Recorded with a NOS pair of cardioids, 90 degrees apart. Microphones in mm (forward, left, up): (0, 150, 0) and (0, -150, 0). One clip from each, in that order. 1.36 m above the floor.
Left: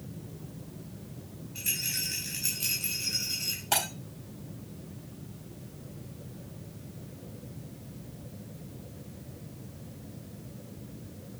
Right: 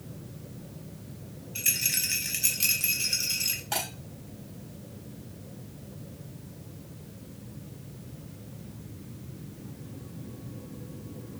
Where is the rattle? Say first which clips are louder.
Right 4 dB; 50° right, 3.5 m.